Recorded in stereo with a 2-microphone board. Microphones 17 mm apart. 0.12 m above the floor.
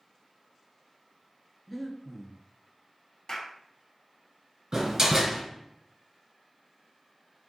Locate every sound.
1.7 s breathing: centre (ahead or behind), 1.0 m
3.3 s a clap: 45° left (ahead or behind), 1.8 m
4.7 s a door slam: 35° right (ahead or behind), 1.5 m